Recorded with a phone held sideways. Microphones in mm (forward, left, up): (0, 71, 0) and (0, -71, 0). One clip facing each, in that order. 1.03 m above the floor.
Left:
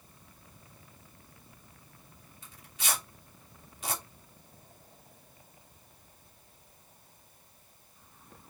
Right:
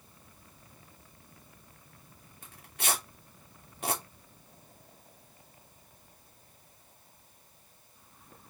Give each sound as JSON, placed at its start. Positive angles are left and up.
{"t": 2.4, "sound": "tearing paper", "side_deg": -55, "distance_m": 3.0}